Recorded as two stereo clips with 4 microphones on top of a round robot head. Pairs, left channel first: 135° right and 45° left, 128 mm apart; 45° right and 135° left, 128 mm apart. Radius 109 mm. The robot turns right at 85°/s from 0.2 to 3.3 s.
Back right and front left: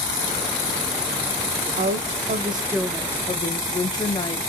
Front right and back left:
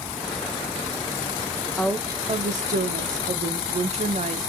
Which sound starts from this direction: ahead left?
A woman speaking, at 1.8 s.